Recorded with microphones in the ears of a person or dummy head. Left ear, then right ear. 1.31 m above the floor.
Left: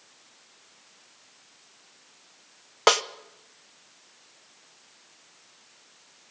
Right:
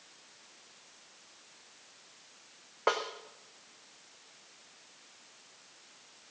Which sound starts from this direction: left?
A snare drum, at 2.9 s.